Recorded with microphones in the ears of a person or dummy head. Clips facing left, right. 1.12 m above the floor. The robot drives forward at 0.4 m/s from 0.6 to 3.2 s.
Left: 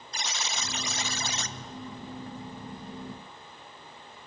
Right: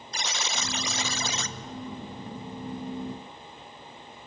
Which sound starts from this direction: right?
A buzzer, at 0.1 s.